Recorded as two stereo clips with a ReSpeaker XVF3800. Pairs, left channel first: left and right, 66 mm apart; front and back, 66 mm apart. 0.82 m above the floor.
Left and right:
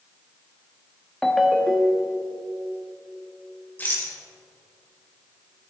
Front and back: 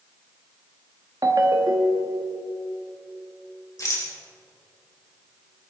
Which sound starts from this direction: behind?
A ringtone, at 1.2 s.